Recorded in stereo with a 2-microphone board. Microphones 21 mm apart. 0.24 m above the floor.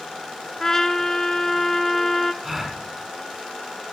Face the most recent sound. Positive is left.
turn(degrees=-10)  # may be behind; listen again after turning